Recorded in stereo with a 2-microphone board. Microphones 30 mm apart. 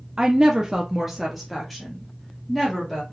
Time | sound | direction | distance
0.2 | a woman speaking | 25° right (ahead or behind) | 0.6 m